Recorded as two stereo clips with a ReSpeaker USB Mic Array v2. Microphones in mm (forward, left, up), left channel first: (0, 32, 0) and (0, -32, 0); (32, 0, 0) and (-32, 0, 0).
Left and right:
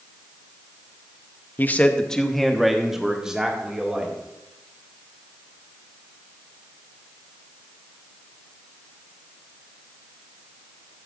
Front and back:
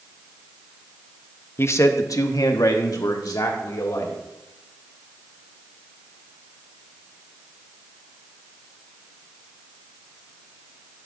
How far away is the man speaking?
About 0.7 m.